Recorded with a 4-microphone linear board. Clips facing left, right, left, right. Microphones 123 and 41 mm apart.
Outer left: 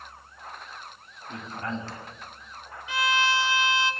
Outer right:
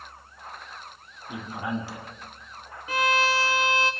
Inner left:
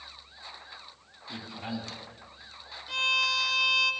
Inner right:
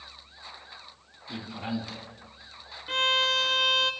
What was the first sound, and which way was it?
A man speaking, 10° right (ahead or behind).